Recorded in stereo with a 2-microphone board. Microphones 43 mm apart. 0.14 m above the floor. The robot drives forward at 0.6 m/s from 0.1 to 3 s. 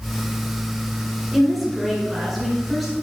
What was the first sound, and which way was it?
A woman speaking, centre (ahead or behind).